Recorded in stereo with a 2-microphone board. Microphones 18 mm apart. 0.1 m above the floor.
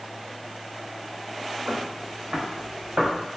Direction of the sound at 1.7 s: 55° right (ahead or behind).